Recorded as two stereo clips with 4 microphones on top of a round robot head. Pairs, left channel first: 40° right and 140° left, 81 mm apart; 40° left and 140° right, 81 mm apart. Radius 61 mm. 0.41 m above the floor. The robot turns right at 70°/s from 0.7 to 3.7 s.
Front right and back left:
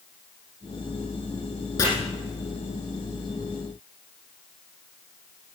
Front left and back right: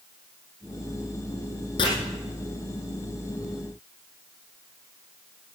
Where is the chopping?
10° left, 6 m; by 1.9 s 15° left, 6 m.